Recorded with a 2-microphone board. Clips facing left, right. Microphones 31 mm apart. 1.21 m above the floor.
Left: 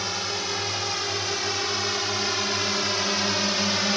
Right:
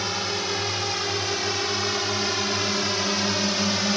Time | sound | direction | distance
0.0 | a drone | 5° right (ahead or behind) | ?